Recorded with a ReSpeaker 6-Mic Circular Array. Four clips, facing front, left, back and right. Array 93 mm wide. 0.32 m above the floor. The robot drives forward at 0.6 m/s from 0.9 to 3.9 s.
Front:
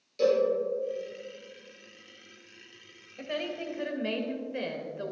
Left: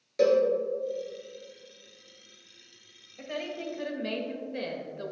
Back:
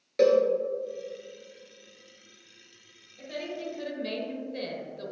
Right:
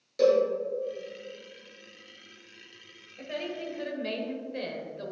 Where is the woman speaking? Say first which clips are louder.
Even, front 2 dB; straight ahead, 1.2 m.